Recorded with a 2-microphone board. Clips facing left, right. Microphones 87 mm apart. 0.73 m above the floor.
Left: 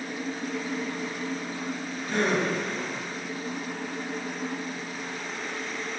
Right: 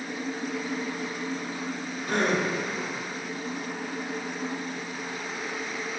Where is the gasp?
60° right (ahead or behind), 1.8 m.